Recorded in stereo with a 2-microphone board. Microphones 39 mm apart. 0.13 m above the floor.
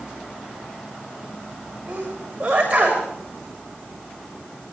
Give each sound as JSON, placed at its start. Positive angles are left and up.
{"t": 1.9, "sound": "a sneeze", "side_deg": -20, "distance_m": 8.5}